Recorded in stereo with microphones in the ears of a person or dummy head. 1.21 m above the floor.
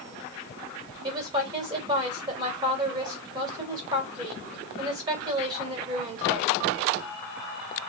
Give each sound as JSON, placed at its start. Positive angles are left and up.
{"t": 1.0, "sound": "a woman speaking", "side_deg": -20, "distance_m": 2.5}